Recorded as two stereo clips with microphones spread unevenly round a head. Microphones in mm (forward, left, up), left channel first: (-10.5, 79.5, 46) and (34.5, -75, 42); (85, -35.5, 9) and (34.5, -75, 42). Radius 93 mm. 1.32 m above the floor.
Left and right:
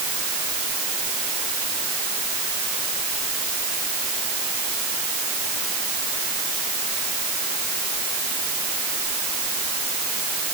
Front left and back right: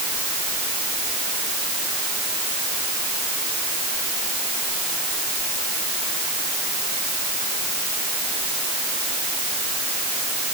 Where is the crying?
No crying in this recording.